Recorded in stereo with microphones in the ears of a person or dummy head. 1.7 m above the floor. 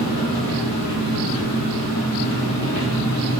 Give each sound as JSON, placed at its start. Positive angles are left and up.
{"t": 0.0, "sound": "an engine running", "side_deg": 70, "distance_m": 0.9}